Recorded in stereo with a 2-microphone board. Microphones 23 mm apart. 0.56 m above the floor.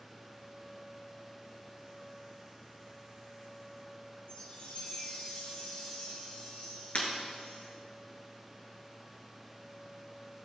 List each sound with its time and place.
4.3 s a chime: 75° left (ahead or behind), 4.5 m
7.0 s breaking glass: 60° left (ahead or behind), 2.5 m